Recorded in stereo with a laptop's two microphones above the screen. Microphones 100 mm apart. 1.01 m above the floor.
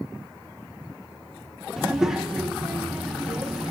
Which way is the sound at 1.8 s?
5° right (ahead or behind).